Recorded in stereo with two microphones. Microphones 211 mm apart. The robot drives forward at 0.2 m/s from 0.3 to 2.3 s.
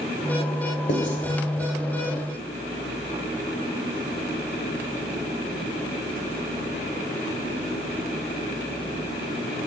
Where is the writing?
60° left (ahead or behind), 0.9 m.